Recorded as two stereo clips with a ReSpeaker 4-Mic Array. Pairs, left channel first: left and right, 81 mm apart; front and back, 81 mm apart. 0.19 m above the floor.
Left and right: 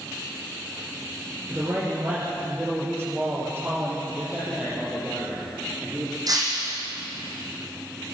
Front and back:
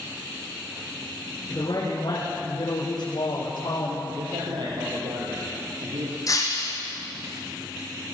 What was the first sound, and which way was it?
A man speaking, 30° right.